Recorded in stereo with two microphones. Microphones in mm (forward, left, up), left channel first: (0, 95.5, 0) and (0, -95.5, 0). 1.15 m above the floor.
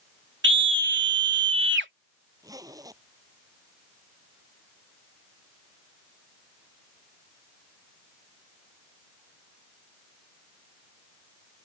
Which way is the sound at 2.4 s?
20° right (ahead or behind).